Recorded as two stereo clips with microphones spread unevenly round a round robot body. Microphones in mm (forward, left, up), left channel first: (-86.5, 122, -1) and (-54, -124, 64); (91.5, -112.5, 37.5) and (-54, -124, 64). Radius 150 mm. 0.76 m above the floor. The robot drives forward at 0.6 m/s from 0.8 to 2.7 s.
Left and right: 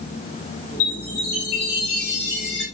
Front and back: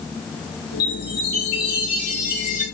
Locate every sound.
0.8 s a chime: 35° left, 4 m; by 2.6 s 45° left, 3.5 m